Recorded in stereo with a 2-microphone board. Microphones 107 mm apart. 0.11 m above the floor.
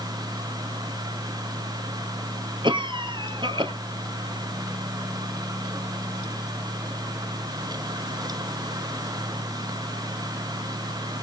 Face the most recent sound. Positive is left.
turn(degrees=-45)  # may be behind; listen again after turning